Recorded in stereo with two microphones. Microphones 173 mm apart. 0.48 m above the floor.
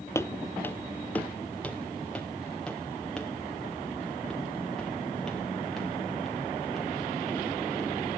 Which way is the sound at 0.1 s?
15° left (ahead or behind).